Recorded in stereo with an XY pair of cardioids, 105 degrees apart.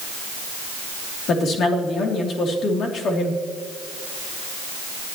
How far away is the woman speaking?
About 3 m.